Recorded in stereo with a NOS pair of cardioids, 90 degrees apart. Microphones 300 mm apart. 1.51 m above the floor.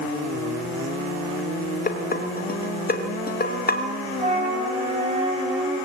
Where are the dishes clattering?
30° left, 3 m.